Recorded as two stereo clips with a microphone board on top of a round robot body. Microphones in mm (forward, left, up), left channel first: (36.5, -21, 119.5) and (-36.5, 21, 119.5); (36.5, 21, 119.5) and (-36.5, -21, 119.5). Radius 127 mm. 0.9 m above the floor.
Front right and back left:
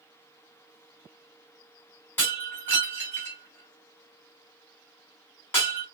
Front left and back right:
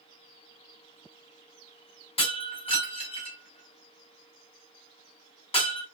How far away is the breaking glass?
About 1.3 m.